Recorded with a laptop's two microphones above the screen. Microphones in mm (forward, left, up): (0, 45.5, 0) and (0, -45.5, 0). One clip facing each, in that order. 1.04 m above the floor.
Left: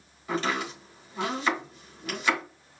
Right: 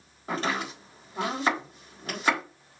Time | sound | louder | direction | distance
0.3 | chopping | left 1 dB | 40° right (ahead or behind) | 4 m